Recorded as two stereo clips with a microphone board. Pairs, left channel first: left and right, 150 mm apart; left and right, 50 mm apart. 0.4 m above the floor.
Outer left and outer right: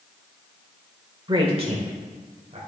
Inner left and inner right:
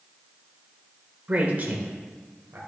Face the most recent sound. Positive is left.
turn(degrees=-50)  # may be behind; listen again after turning